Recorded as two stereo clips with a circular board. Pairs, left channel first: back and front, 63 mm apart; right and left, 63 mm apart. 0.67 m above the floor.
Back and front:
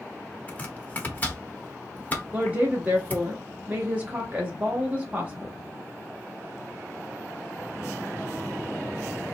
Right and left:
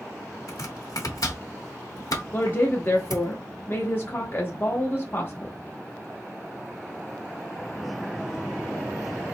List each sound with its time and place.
0.5 s chopping: 115° right, 0.9 m
2.3 s a woman speaking: 50° right, 0.7 m